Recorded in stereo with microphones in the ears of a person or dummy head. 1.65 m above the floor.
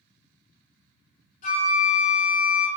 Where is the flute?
50° left (ahead or behind), 1.8 m.